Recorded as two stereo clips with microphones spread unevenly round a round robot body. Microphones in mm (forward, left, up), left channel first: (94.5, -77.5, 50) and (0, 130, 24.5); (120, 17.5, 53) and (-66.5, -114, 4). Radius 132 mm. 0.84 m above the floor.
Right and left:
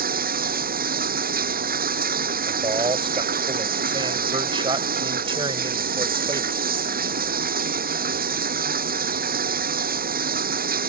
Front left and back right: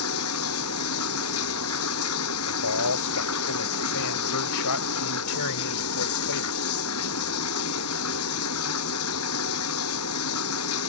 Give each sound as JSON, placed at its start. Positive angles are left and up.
{"t": 0.0, "sound": "running water", "azimuth_deg": 65}
{"t": 2.5, "sound": "a man speaking", "azimuth_deg": 45}